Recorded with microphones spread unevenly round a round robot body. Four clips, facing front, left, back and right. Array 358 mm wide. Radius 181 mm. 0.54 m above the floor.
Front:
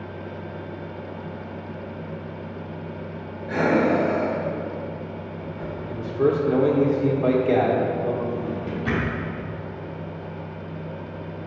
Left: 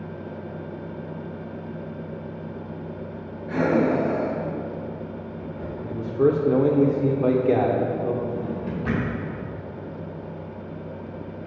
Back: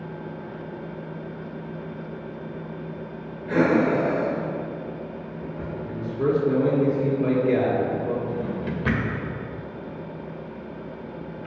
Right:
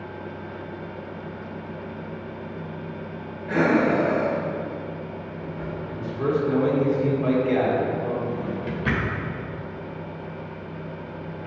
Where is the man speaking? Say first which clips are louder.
Left 7 dB, front 3 dB; 80° left, 1.4 m.